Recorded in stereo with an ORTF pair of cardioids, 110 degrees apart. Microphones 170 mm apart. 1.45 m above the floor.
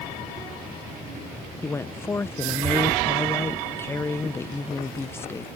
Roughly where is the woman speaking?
Ahead.